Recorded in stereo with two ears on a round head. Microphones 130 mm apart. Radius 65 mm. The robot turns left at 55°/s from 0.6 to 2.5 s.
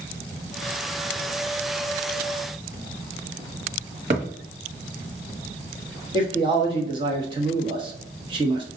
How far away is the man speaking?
About 1.2 m.